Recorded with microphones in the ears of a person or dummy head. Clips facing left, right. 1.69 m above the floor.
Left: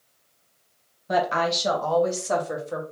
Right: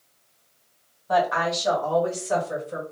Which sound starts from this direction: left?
A woman speaking, at 1.1 s.